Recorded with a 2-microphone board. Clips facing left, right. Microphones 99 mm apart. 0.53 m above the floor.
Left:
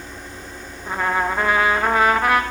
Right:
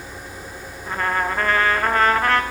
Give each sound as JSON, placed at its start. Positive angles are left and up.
{"t": 0.9, "sound": "a trumpet", "side_deg": 10, "distance_m": 0.6}